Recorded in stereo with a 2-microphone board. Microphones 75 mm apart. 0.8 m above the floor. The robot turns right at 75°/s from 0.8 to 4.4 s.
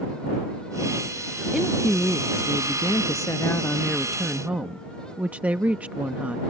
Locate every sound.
1.5 s a woman speaking: 10° right; by 6.4 s 155° right